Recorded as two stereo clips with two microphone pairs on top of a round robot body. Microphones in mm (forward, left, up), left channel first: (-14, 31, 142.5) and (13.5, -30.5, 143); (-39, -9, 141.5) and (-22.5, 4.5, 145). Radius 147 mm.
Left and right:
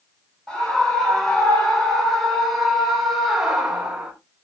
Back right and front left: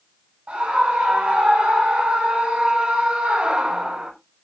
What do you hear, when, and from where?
0.5 s a scream: 35° left, 7 m; by 4.1 s 15° left, 4 m